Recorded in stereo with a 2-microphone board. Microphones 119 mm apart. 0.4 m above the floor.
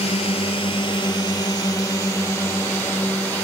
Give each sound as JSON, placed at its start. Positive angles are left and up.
{"t": 0.0, "sound": "a drone", "side_deg": 55}